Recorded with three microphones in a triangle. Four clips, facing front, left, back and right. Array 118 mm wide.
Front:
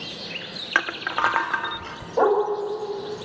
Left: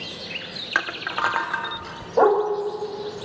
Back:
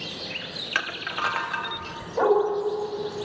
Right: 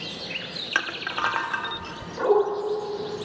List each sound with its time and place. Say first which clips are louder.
0.8 s crushing: left 2 dB, front 6 dB; 20° left, 1.3 m
2.2 s a dog barking: left 3 dB, front 1 dB; 65° left, 8 m